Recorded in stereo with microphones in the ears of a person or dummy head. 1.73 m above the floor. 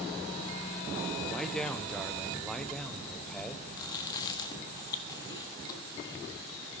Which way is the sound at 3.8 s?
20° left (ahead or behind).